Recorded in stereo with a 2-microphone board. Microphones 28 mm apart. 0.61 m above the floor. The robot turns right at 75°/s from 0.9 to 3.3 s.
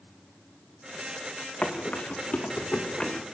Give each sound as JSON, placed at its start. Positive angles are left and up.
{"t": 1.6, "sound": "running footsteps", "side_deg": 40, "distance_m": 3.0}